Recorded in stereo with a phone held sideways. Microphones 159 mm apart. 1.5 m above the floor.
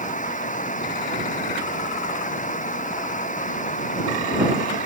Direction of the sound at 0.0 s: 50° left (ahead or behind).